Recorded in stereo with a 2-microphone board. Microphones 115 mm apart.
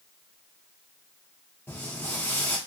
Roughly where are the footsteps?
Centre.